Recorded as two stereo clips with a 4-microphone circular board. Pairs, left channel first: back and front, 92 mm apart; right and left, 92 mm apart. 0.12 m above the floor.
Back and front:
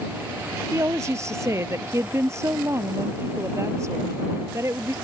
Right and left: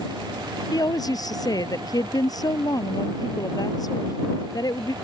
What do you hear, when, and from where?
0.7 s a woman speaking: 50° right